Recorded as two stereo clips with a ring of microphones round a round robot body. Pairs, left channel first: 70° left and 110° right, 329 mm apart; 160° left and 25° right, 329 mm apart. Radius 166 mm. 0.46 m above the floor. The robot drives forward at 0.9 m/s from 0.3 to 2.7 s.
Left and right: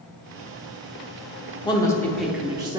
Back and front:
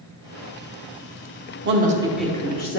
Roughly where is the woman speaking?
Ahead.